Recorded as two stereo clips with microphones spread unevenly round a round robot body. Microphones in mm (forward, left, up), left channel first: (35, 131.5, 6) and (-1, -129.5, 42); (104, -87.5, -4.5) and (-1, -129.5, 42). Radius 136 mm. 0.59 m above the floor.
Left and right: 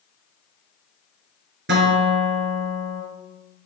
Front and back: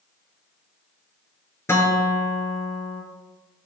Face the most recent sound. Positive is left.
turn(degrees=-50)